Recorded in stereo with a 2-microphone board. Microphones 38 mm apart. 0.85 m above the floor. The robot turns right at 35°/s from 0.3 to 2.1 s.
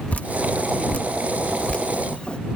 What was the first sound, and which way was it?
Dripping, 45° left (ahead or behind).